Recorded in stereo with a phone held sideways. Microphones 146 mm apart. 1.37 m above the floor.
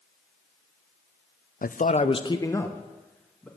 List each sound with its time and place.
1.6 s a man speaking: 70° left (ahead or behind), 0.6 m; by 3.5 s 5° left (ahead or behind), 1.9 m